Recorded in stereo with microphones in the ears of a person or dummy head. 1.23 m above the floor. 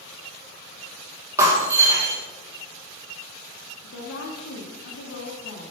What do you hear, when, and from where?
1.4 s breaking glass: 15° right (ahead or behind), 2.5 m
3.8 s a woman speaking: 80° left, 2.0 m